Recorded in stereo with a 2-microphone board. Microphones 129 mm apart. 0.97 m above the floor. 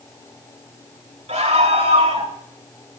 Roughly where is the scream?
Right.